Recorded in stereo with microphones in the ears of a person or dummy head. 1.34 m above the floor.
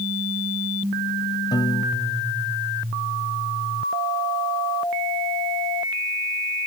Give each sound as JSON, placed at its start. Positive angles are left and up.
{"t": 1.5, "sound": "a piano", "side_deg": 20}